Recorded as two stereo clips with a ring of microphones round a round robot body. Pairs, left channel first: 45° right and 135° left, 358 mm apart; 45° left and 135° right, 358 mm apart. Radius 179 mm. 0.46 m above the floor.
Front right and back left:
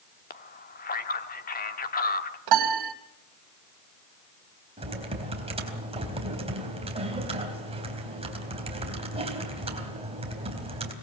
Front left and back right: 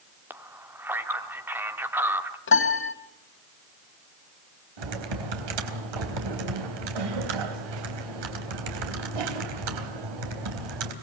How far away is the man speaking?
About 1.4 m.